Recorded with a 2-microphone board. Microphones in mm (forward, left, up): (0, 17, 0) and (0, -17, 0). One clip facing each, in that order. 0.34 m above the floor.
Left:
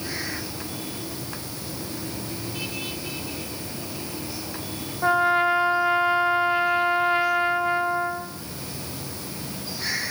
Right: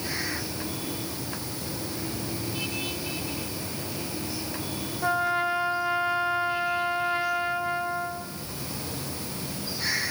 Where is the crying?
I don't hear crying.